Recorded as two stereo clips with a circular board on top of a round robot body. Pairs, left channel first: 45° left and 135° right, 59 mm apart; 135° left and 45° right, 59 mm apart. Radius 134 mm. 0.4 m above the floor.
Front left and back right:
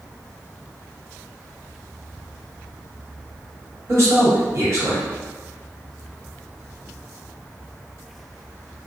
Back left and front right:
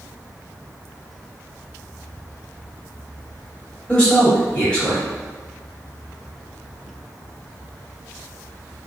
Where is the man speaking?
155° right, 1.9 m.